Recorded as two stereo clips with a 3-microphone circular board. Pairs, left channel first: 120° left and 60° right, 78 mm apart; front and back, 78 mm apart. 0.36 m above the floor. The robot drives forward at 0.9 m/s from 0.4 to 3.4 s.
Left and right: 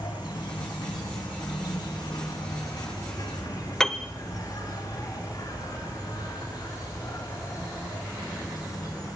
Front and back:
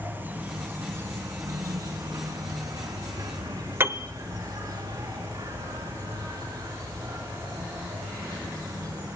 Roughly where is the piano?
Behind.